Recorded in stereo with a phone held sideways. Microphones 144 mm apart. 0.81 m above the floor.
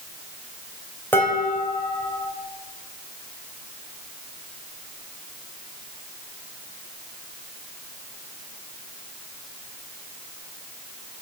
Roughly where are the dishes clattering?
Centre.